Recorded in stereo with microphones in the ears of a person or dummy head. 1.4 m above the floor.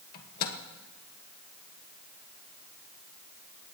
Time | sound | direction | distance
0.1 | a microwave | 50° left (ahead or behind) | 1.4 m